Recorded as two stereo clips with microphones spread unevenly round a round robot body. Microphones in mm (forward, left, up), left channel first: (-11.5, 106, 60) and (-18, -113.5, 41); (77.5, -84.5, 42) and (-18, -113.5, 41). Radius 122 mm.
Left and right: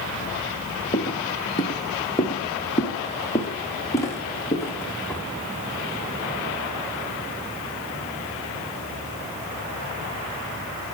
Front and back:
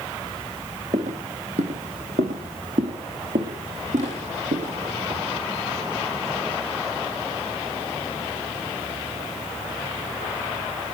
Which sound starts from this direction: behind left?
Footsteps, at 0.9 s.